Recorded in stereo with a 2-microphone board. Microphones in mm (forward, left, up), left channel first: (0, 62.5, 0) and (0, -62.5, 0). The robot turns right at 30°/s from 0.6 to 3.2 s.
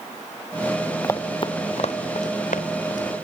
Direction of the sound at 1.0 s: 20° left (ahead or behind).